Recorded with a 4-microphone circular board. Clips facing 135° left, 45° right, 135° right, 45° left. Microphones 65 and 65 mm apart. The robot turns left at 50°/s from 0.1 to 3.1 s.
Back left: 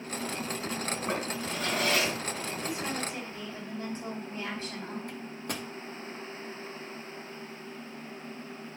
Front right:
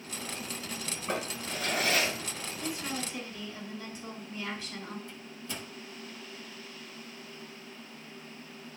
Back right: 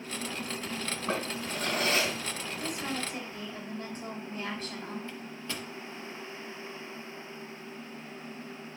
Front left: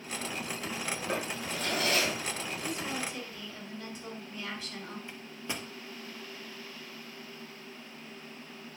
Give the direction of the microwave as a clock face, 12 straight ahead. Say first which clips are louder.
Back left 5 dB, back right 1 dB; 8 o'clock.